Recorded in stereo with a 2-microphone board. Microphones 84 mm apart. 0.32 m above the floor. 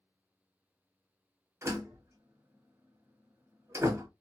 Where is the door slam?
30° right (ahead or behind), 1.1 m.